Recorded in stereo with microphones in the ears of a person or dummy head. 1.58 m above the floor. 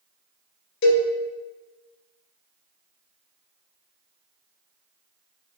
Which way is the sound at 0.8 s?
60° left (ahead or behind).